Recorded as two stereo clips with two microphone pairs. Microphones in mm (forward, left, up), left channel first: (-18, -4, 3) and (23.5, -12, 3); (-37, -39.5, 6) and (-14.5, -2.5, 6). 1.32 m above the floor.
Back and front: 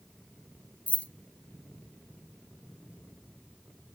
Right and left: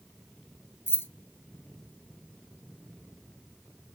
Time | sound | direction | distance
0.9 | keys jangling | 135° right | 0.6 m